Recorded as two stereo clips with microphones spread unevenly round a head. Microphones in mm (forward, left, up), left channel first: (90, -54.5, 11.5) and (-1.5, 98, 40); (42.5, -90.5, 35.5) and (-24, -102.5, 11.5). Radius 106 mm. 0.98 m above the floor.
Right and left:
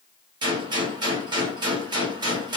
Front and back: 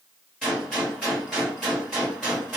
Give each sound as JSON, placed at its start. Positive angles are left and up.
{"t": 0.4, "sound": "a gunshot", "azimuth_deg": 75, "distance_m": 0.8}